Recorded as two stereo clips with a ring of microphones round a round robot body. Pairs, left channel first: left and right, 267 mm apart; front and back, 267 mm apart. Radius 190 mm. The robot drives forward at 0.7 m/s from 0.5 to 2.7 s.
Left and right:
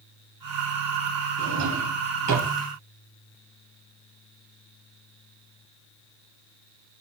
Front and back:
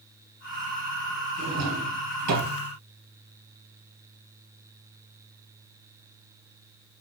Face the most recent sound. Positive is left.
turn(degrees=-140)